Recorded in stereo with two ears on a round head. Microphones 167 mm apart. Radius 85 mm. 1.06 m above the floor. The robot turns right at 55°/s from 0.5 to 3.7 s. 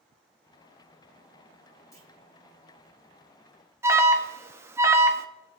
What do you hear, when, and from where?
1.9 s a clunk: 20° left (ahead or behind), 3 m; by 2.1 s 30° left (ahead or behind), 3 m
3.8 s an alarm: 15° right (ahead or behind), 1.0 m